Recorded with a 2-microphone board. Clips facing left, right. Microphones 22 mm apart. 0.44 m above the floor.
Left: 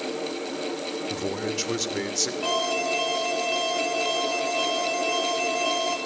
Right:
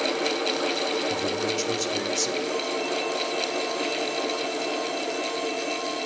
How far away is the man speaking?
About 1.4 m.